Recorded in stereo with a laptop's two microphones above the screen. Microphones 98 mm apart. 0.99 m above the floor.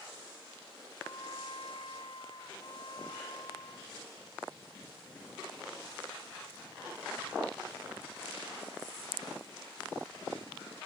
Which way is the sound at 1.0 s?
65° left (ahead or behind).